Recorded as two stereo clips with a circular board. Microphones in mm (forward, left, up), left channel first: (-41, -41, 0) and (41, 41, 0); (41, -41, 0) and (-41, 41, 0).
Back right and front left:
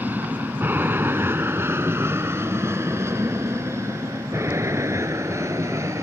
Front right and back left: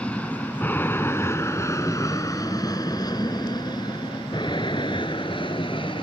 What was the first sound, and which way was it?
An aircraft, 10° left.